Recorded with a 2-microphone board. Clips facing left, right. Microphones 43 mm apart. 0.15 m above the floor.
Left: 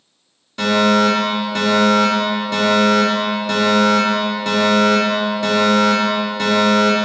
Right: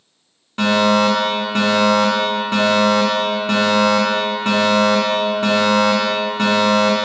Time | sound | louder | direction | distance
0.6 | a fire alarm | even | 30° right (ahead or behind) | 2.5 m